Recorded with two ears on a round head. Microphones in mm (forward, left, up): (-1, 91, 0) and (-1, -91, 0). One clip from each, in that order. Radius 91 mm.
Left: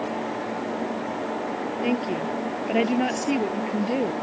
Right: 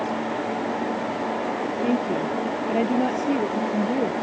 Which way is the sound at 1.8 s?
80° left.